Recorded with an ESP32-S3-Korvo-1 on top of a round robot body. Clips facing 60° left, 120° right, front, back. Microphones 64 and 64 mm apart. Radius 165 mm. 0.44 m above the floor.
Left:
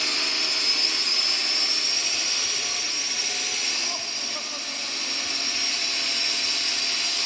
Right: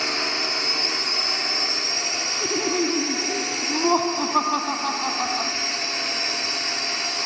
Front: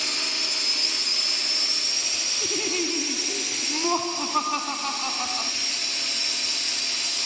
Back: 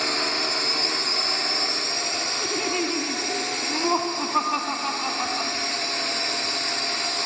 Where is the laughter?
100° right.